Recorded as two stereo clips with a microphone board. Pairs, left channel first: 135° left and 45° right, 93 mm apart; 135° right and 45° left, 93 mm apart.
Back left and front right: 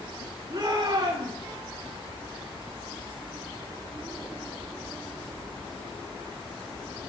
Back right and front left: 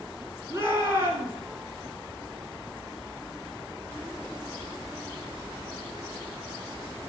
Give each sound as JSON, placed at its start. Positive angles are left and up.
{"t": 0.5, "sound": "a shout", "azimuth_deg": -15, "distance_m": 1.9}